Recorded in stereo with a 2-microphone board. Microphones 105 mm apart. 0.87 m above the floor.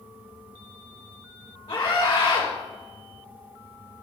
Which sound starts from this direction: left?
A scream, at 1.7 s.